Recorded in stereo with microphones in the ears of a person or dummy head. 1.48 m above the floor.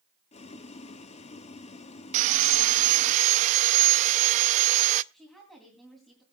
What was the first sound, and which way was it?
Boiling, 40° left (ahead or behind).